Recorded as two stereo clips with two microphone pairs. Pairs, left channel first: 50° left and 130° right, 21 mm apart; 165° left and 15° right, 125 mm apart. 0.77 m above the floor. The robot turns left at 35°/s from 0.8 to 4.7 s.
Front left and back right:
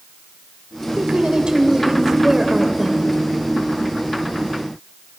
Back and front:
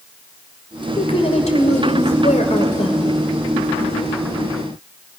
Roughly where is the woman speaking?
Behind right.